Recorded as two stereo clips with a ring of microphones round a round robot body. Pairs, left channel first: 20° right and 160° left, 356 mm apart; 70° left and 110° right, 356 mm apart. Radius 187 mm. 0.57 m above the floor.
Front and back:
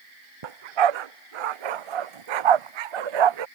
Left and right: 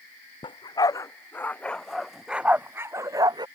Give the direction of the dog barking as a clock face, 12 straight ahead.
7 o'clock.